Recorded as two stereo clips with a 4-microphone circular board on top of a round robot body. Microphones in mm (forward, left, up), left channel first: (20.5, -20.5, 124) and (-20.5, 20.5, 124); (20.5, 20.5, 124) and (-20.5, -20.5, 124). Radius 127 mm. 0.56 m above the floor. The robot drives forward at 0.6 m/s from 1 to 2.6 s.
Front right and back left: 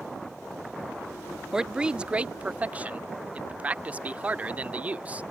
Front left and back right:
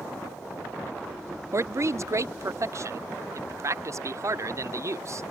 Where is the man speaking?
145° right; by 5.2 s 160° right.